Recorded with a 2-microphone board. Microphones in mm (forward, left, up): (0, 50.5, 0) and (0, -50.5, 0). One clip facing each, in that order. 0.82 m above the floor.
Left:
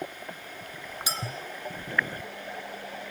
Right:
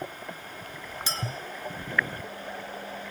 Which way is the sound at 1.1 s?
15° left (ahead or behind).